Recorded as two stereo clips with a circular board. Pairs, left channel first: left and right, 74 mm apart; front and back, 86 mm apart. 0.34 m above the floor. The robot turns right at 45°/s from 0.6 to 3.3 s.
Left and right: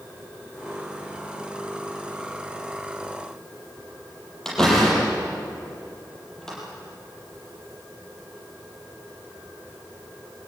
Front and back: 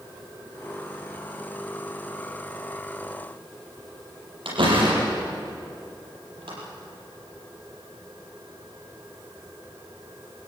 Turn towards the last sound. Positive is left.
turn(degrees=175)